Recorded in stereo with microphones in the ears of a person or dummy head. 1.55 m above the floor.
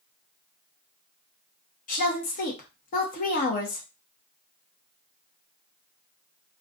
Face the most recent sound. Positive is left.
turn(degrees=40)  # may be behind; listen again after turning